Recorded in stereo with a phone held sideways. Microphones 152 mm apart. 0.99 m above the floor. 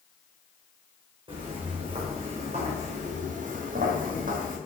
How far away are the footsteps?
About 4 m.